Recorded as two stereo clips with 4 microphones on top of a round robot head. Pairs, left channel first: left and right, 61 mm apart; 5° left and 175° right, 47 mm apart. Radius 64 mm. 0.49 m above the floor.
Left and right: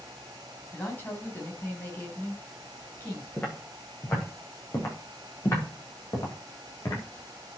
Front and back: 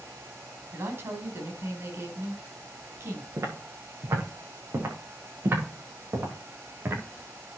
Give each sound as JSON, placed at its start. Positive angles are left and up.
{"t": 0.7, "sound": "a woman speaking", "azimuth_deg": 150, "distance_m": 3.5}
{"t": 3.4, "sound": "footsteps", "azimuth_deg": 160, "distance_m": 7.0}